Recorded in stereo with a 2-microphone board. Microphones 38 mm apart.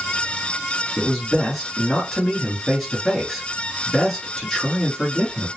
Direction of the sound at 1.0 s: 5° left (ahead or behind).